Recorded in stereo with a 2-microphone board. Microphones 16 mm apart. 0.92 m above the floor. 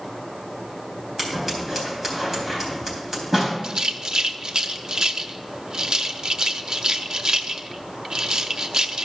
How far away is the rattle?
About 0.6 m.